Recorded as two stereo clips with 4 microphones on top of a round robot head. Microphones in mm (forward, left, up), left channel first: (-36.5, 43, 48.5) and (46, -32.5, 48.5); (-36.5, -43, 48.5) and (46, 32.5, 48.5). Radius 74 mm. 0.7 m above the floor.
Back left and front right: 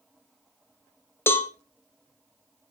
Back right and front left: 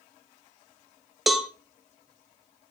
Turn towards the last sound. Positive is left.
turn(degrees=125)